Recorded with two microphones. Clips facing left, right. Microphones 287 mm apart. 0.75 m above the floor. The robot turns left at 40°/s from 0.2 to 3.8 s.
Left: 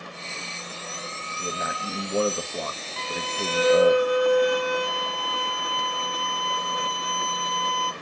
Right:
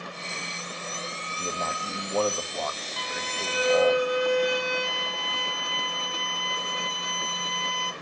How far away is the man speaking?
About 0.9 m.